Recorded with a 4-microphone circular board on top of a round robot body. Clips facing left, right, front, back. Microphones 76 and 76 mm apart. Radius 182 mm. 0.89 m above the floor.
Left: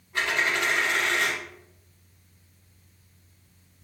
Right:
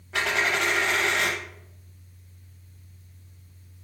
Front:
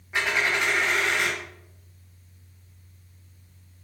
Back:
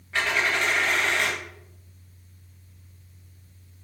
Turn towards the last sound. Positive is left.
turn(degrees=-80)